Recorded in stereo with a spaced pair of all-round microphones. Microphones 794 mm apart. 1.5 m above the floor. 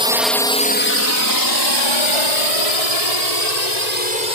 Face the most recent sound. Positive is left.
turn(degrees=55)  # may be behind; listen again after turning